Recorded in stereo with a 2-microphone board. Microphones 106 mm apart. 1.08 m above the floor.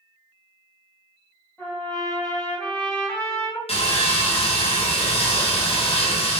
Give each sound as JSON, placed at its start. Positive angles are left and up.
{"t": 1.6, "sound": "a trumpet", "side_deg": 10, "distance_m": 0.9}
{"t": 3.7, "sound": "sawing", "side_deg": 65, "distance_m": 0.8}